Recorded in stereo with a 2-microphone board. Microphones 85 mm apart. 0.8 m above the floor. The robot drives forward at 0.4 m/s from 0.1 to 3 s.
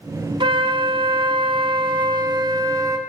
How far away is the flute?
About 0.8 m.